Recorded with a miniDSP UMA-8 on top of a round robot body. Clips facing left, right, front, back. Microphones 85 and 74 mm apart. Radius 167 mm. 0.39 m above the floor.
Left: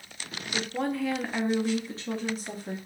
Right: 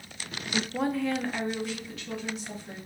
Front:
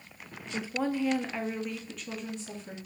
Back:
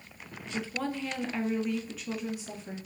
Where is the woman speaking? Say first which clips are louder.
Right 1 dB, front 3 dB; 40° right, 1.0 m; by 2.8 s 105° left, 1.2 m.